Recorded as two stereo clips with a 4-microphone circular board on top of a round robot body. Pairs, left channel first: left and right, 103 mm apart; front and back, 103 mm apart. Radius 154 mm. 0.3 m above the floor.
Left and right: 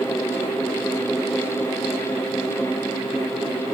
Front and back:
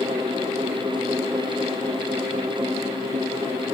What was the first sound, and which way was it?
Only background noise.